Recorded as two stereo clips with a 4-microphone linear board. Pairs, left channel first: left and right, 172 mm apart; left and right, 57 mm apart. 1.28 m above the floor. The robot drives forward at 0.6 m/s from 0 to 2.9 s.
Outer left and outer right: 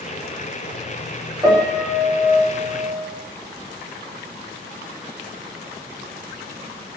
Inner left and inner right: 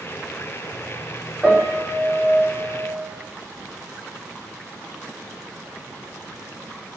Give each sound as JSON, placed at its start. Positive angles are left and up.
{"t": 1.4, "sound": "a piano", "side_deg": -25, "distance_m": 6.0}